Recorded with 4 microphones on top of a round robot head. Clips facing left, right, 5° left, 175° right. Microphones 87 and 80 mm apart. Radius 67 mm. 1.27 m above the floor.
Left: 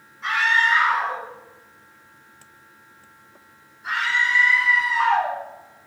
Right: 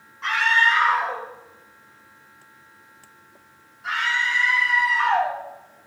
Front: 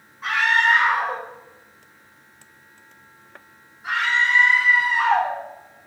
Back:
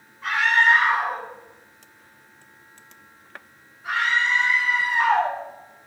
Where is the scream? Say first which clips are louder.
Even, even; 65° right, 5.5 m.